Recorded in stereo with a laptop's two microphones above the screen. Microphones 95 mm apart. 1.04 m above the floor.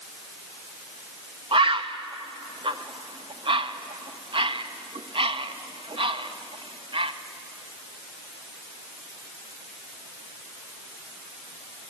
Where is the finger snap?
No finger snap in this recording.